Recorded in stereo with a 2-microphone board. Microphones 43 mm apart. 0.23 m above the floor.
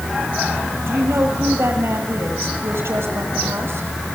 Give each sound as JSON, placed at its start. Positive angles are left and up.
{"t": 0.9, "sound": "a woman speaking", "side_deg": -70, "distance_m": 6.0}